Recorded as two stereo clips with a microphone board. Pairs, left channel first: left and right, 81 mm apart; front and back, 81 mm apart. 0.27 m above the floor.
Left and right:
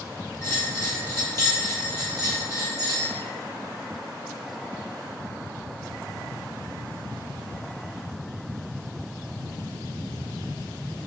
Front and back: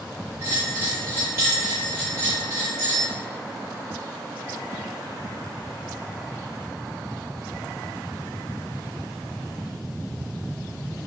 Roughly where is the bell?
Behind left.